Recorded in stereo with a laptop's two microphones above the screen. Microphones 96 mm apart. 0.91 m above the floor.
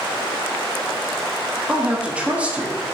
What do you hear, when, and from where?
1.7 s a woman speaking: 15° right (ahead or behind), 1.1 m